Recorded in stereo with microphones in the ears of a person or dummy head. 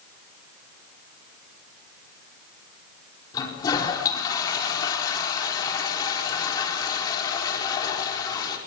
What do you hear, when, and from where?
3.3 s a toilet flushing: 25° left (ahead or behind), 4.5 m